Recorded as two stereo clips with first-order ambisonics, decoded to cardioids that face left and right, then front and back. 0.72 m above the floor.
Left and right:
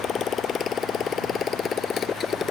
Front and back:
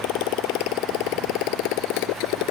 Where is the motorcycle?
25° left; by 2.5 s 20° left.